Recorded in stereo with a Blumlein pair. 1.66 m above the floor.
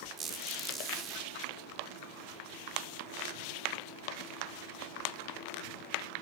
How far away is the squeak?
About 3.5 m.